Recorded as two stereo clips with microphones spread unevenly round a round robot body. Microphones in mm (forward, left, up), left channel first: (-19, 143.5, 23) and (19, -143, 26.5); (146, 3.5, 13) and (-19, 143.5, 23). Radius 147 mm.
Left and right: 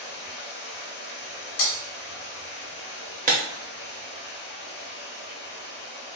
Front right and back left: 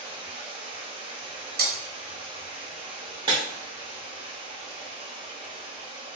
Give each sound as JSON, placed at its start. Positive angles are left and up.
{"t": 0.0, "sound": "running water", "azimuth_deg": 85, "distance_m": 0.8}
{"t": 1.6, "sound": "breaking glass", "azimuth_deg": 90, "distance_m": 0.7}
{"t": 3.3, "sound": "breaking glass", "azimuth_deg": -145, "distance_m": 0.6}